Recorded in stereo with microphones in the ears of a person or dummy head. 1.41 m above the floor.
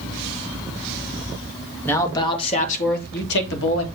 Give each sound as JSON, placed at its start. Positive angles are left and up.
{"t": 1.9, "sound": "a man speaking", "side_deg": 15, "distance_m": 0.9}